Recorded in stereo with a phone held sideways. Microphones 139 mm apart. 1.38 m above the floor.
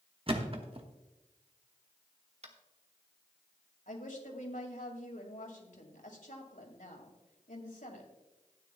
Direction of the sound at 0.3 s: 40° right (ahead or behind).